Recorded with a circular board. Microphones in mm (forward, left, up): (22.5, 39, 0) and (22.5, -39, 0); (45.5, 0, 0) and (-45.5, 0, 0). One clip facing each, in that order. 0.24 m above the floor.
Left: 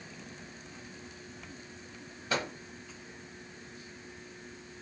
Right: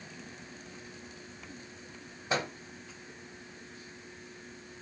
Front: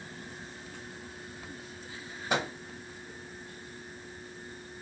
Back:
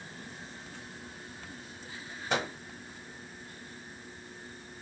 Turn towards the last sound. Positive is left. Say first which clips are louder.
# right 1 dB, front 1 dB
turn(degrees=-65)